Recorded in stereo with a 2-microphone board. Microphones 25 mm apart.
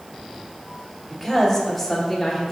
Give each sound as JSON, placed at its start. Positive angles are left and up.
{"t": 1.1, "sound": "a woman speaking", "side_deg": 0, "distance_m": 2.0}